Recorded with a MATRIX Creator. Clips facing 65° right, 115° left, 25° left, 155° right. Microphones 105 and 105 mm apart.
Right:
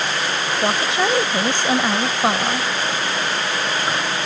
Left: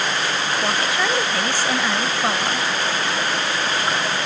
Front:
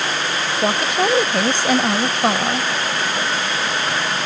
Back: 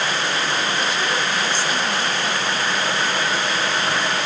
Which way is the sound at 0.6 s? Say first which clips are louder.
Right 4 dB, front 5 dB; straight ahead.